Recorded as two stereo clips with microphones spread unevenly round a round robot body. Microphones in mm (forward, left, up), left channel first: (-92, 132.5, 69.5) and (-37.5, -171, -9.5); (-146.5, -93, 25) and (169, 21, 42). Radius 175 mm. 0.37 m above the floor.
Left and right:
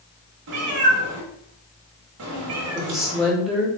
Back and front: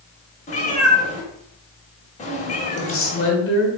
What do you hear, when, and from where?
0.5 s a cat meowing: 95° right, 0.9 m
2.8 s a woman speaking: 150° right, 1.2 m